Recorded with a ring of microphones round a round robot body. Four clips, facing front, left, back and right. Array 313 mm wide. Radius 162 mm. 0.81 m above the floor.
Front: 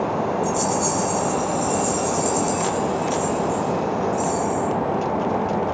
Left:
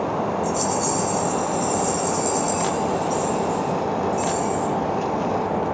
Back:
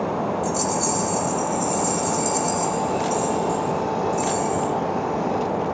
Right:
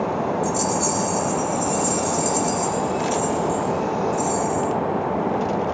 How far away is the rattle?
About 3 m.